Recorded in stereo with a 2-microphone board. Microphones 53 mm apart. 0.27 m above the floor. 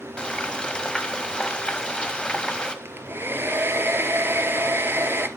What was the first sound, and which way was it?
Frying, 15° left (ahead or behind).